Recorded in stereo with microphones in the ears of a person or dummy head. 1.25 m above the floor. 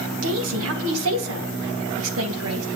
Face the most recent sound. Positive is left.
turn(degrees=-75)  # may be behind; listen again after turning